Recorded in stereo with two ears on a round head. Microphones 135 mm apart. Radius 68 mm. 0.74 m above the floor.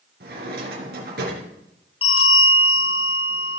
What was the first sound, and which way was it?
A drawer, 70° right (ahead or behind).